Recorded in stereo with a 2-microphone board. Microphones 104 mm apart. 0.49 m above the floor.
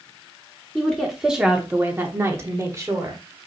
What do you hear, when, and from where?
0.8 s a woman speaking: 5° left (ahead or behind), 1.2 m; by 3.2 s 30° right (ahead or behind), 1.6 m